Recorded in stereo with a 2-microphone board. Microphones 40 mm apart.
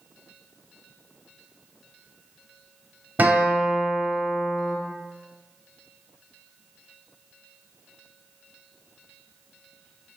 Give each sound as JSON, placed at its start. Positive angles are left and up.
{"t": 3.2, "sound": "a guitar", "side_deg": -45, "distance_m": 0.8}